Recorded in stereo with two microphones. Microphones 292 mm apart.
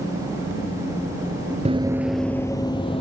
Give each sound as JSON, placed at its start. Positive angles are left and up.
{"t": 1.6, "sound": "running footsteps", "side_deg": -25, "distance_m": 0.5}